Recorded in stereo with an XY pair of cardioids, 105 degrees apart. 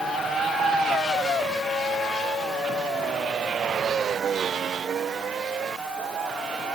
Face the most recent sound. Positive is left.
No sound to turn to.